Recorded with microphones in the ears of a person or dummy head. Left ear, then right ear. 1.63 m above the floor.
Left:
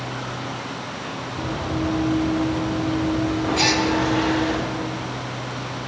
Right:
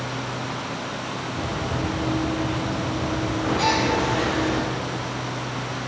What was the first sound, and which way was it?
Running footsteps, 20° left (ahead or behind).